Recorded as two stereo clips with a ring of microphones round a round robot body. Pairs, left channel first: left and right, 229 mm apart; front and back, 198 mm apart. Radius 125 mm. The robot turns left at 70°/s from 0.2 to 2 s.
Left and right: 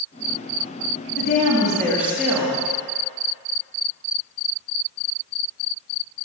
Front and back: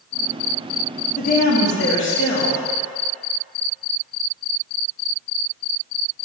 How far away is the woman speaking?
About 1.6 m.